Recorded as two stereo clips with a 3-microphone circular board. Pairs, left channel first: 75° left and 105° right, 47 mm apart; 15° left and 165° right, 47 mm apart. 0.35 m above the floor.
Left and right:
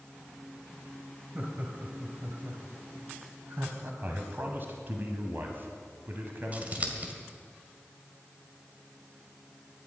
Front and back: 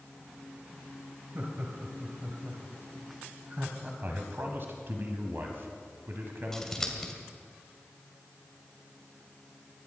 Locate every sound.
1.4 s laughter: 150° right, 2.5 m; by 3.9 s 115° right, 3 m
4.0 s a man speaking: 140° right, 1.8 m
6.5 s scissors: 65° right, 2 m